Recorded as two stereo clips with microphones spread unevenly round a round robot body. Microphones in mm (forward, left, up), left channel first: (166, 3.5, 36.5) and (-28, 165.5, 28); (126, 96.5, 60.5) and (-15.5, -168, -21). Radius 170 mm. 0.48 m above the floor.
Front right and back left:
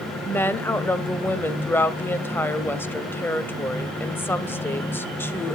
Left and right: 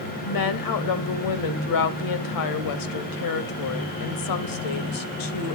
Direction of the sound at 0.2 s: 45° left.